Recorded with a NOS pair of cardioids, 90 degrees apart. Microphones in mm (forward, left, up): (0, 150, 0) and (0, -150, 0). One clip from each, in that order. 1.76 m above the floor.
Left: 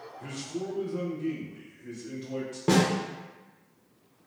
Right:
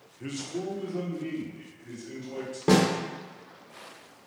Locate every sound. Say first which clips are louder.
0.2 s a man speaking: right 2 dB; 30° right, 0.6 m; by 2.6 s 45° left, 1.7 m
2.7 s a snare drum: right 2 dB; 5° right, 0.7 m